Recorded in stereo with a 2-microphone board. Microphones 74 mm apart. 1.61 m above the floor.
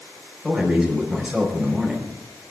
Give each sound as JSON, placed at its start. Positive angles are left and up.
{"t": 0.4, "sound": "a man speaking", "side_deg": -10, "distance_m": 5.0}